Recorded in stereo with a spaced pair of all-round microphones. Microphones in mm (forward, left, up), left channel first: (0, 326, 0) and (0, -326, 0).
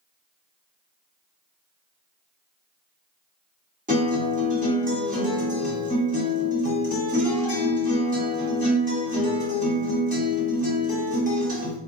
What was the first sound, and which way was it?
A guitar, 10° right (ahead or behind).